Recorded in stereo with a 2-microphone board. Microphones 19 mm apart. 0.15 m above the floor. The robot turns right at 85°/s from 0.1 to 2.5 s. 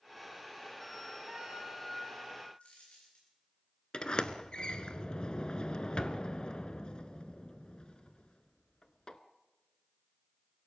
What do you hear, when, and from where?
1.3 s a flute: 35° right, 2.5 m; by 2.5 s 70° left, 2.5 m
2.6 s a dropped coin: 65° left (ahead or behind), 9.5 m
3.9 s a sliding door: 50° left (ahead or behind), 0.9 m